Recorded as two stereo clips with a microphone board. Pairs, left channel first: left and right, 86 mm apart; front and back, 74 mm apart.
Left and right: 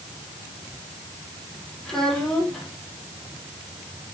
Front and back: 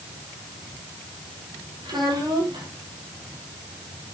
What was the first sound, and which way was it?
A child speaking, 175° left.